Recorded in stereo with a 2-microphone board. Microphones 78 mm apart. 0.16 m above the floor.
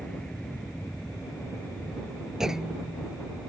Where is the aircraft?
10° left (ahead or behind).